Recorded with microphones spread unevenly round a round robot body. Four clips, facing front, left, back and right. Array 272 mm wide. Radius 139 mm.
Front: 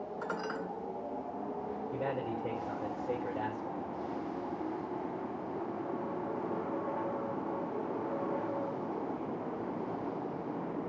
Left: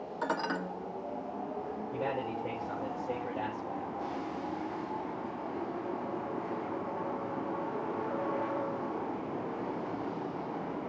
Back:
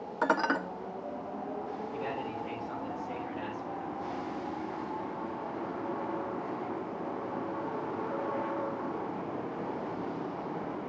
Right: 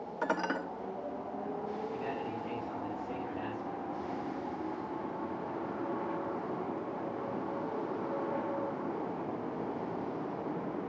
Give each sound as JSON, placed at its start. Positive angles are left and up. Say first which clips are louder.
{"t": 0.2, "sound": "dishes clattering", "louder": "even, back 11 dB", "azimuth_deg": -175, "distance_m": 1.3}
{"t": 1.9, "sound": "a man speaking", "louder": "left 3 dB, front 3 dB", "azimuth_deg": 35, "distance_m": 4.5}